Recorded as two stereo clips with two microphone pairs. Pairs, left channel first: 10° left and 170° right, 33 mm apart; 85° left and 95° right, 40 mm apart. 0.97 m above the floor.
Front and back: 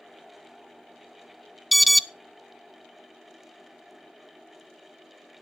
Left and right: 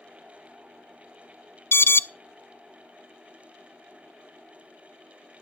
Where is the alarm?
100° left, 0.5 m.